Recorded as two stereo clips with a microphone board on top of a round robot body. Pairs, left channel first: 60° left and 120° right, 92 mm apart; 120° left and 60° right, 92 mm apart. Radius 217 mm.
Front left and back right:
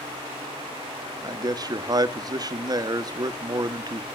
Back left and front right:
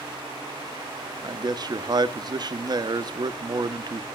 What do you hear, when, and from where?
1.2 s a man speaking: 90° right, 1.2 m